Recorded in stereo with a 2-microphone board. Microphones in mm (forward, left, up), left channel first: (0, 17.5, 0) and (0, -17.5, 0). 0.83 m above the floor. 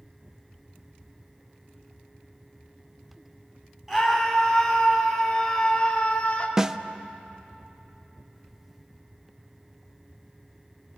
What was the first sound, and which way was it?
A scream, 5° right (ahead or behind).